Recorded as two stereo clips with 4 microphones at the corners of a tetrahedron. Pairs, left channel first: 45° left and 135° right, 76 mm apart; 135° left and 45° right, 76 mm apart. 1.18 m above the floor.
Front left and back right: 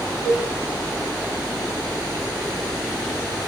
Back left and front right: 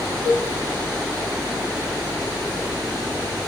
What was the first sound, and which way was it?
A cowbell, 160° left.